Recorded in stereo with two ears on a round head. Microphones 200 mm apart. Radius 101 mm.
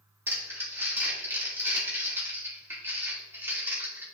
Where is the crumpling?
10° right (ahead or behind), 2.5 m.